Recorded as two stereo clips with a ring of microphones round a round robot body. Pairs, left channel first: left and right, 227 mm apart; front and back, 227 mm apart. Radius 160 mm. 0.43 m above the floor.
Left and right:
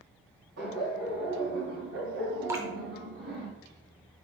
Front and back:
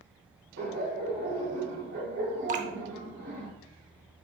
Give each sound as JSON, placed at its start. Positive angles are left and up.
{"t": 0.6, "sound": "laughter", "azimuth_deg": -135, "distance_m": 2.5}
{"t": 2.5, "sound": "dripping", "azimuth_deg": -160, "distance_m": 0.5}